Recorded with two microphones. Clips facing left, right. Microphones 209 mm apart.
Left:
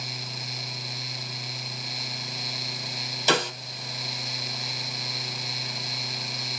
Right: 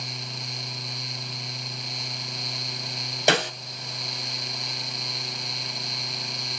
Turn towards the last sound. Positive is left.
turn(degrees=-70)  # may be behind; listen again after turning